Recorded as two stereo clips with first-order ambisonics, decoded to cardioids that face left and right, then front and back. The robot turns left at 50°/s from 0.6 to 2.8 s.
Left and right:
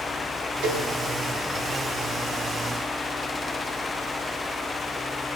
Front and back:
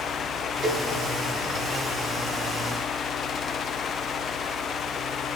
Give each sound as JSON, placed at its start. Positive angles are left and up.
{"t": 0.6, "sound": "a cowbell", "azimuth_deg": -115, "distance_m": 3.5}